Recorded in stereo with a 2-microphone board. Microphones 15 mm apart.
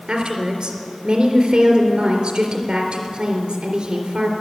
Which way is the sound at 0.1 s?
60° right (ahead or behind).